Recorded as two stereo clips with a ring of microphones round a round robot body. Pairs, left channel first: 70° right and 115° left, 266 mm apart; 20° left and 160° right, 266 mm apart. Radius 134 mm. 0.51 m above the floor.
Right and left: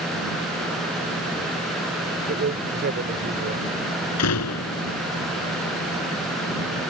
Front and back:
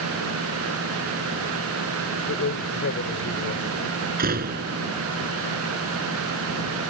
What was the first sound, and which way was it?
A man speaking, 60° left.